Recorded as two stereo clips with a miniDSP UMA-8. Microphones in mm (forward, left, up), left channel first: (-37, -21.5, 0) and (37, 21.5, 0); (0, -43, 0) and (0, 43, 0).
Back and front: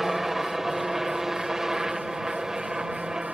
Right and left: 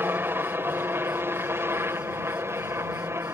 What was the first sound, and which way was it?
A helicopter, 110° left.